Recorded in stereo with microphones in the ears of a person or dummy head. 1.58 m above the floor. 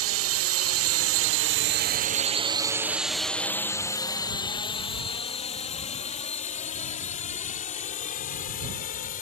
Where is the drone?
75° right (ahead or behind); by 9.2 s 45° left (ahead or behind).